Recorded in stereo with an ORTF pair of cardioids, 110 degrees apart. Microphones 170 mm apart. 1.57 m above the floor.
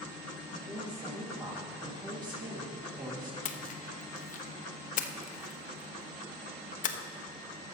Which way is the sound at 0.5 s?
25° right.